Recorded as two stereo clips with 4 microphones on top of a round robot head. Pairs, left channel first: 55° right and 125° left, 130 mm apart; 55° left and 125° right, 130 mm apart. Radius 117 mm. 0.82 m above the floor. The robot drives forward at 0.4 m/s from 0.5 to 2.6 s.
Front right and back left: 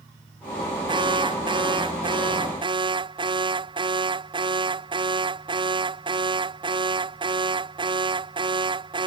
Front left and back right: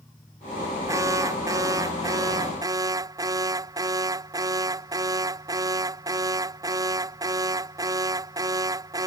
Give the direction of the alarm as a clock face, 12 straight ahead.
6 o'clock.